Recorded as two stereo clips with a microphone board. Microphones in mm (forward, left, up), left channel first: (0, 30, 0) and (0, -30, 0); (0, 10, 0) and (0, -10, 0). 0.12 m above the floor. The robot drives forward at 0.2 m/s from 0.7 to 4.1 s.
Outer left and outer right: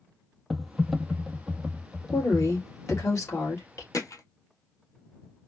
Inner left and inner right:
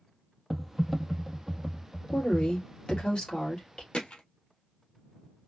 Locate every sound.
0.5 s typing on a keyboard: centre (ahead or behind), 0.6 m
2.1 s a woman speaking: 55° left (ahead or behind), 2.5 m; by 3.8 s 60° left (ahead or behind), 2.5 m
3.9 s hammering: 65° left (ahead or behind), 0.8 m; by 4.2 s 70° left (ahead or behind), 0.8 m